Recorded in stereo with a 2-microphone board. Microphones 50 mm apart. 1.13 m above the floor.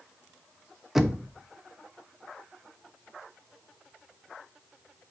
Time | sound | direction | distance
0.9 | knocking | 5° right (ahead or behind) | 0.9 m